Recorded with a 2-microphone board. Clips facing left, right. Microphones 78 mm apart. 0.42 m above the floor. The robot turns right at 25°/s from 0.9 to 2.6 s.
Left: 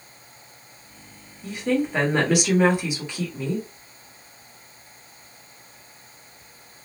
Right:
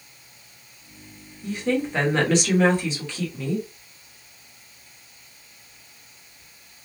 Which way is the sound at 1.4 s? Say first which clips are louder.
Left 1 dB; centre (ahead or behind).